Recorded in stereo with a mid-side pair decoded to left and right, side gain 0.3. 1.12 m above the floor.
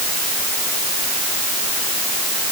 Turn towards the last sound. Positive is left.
No sound to turn to.